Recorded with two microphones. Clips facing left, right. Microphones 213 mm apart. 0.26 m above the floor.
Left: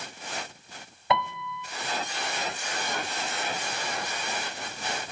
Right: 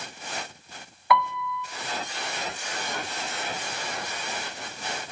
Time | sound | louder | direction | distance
1.1 | a piano | right 3 dB | 25° left (ahead or behind) | 0.6 m